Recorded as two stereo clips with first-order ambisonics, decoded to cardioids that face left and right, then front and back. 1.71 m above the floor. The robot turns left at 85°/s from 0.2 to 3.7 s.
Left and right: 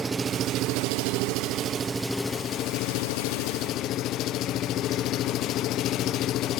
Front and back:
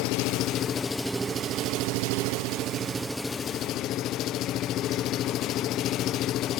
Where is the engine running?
15° right, 0.8 m; by 6.6 s 45° left, 0.8 m.